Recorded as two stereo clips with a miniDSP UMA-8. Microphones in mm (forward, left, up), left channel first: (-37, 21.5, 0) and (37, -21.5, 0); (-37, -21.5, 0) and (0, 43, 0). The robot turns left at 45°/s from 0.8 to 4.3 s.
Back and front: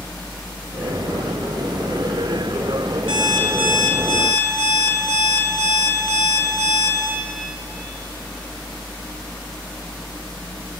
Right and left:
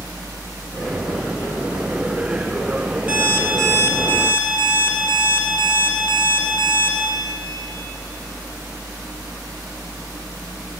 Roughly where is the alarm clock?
Ahead.